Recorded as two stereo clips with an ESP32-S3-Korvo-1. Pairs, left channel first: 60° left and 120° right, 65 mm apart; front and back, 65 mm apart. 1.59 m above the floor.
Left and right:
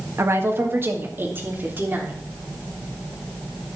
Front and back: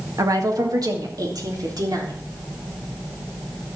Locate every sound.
0.2 s a woman speaking: 160° right, 1.7 m; by 2.2 s 175° right, 3.5 m